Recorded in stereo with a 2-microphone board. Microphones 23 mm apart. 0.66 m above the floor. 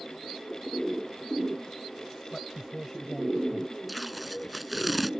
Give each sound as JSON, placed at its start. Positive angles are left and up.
{"t": 2.3, "sound": "a man speaking", "side_deg": 20}
{"t": 3.9, "sound": "tape being pulled", "side_deg": -5}